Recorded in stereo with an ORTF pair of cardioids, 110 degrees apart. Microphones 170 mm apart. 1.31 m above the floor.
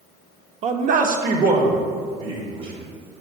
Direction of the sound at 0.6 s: 40° right.